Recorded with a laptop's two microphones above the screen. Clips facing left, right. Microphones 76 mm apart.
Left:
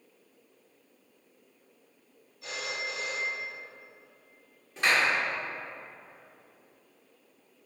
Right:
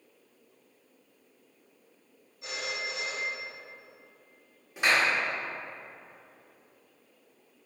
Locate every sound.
2.4 s a phone ringing: 20° right (ahead or behind), 1.0 m
4.8 s a clap: 10° right (ahead or behind), 1.2 m